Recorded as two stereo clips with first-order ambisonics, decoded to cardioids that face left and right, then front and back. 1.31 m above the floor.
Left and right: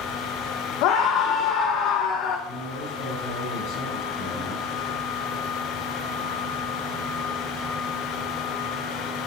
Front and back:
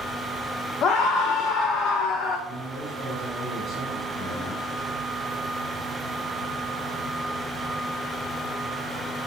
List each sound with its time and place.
0.8 s a scream: 60° left, 1.0 m
2.5 s a man speaking: 60° left, 4 m